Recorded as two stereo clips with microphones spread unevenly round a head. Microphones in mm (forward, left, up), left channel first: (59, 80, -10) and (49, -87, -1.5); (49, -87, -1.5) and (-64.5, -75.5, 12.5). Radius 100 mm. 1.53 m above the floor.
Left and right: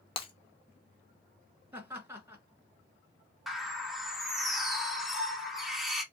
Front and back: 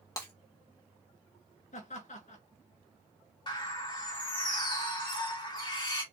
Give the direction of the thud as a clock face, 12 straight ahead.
No thud in this recording.